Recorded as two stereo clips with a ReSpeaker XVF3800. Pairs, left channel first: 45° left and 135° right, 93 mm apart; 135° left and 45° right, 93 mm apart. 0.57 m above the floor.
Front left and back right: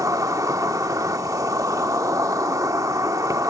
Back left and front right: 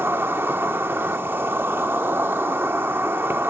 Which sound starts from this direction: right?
An insect, at 0.0 s.